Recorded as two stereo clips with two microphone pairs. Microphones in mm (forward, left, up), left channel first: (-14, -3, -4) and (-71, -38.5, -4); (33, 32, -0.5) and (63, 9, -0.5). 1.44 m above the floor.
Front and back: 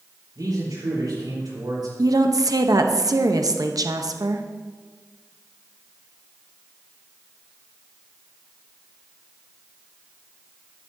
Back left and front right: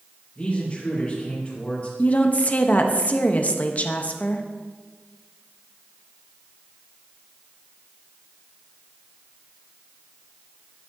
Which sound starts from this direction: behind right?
A man speaking, at 0.3 s.